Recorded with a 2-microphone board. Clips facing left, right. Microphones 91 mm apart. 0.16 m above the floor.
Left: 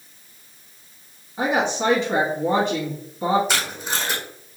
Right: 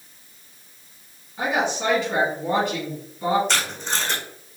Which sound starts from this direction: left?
A woman speaking, at 1.4 s.